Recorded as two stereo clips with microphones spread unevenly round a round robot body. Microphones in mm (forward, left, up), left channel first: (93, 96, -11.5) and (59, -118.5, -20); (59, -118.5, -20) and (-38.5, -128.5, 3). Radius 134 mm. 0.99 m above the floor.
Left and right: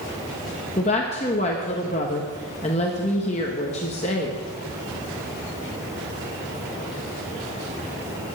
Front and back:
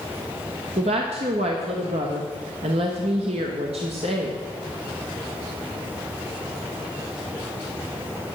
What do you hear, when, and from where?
0.8 s a woman speaking: 145° left, 1.1 m